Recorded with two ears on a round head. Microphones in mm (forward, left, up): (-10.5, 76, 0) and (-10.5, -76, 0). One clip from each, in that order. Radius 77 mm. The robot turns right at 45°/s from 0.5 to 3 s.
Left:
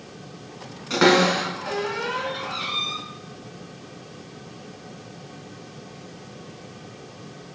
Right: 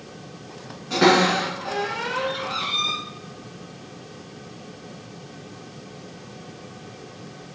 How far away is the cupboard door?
About 1.8 m.